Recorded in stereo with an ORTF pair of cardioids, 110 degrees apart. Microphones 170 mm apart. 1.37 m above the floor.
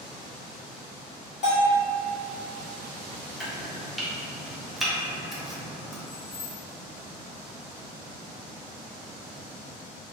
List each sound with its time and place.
1.4 s a bell: 45° left, 1.2 m
3.4 s chopping: straight ahead, 0.7 m
6.1 s keys jangling: 35° left, 0.8 m